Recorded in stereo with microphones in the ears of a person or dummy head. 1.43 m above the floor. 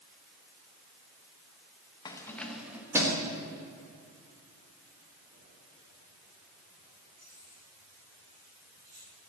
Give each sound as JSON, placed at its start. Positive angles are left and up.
{"t": 2.0, "sound": "keys jangling", "side_deg": 25, "distance_m": 1.0}